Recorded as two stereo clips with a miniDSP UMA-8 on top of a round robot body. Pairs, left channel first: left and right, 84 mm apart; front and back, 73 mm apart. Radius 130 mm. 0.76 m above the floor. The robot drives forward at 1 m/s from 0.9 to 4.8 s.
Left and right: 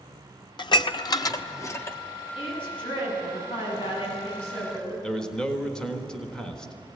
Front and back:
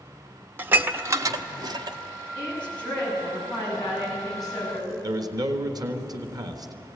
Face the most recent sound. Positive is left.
turn(degrees=170)